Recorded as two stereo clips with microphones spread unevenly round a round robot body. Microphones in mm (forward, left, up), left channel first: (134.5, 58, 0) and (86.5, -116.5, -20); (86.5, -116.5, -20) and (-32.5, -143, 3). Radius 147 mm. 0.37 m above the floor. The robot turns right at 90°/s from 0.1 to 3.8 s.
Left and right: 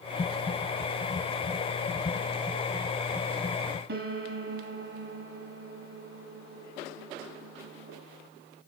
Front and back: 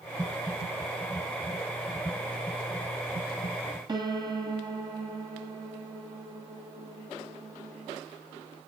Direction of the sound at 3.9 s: 110° right.